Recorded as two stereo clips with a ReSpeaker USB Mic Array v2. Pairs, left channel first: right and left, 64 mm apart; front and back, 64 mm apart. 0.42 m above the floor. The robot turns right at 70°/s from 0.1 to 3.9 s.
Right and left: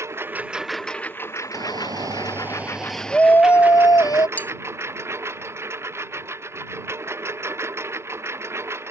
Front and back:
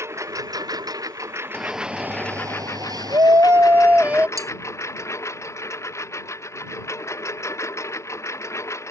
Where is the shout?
85° left; by 4.3 s 110° right.